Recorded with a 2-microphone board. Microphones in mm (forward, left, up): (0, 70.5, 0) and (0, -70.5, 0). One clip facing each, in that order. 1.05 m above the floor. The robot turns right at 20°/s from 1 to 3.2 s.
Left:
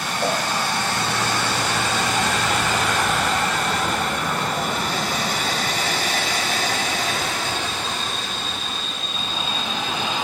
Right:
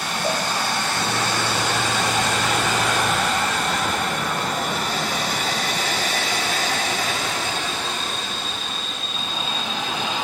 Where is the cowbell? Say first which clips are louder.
Left 2 dB; 65° left (ahead or behind), 6.5 m.